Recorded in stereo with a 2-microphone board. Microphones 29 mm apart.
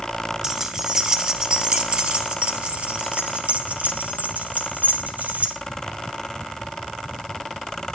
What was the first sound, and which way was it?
Keys jangling, 15° right (ahead or behind).